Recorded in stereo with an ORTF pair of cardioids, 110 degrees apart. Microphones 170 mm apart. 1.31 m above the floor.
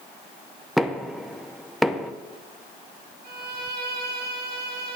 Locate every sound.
0.8 s knocking: straight ahead, 0.6 m
3.2 s a violin: 70° right, 1.8 m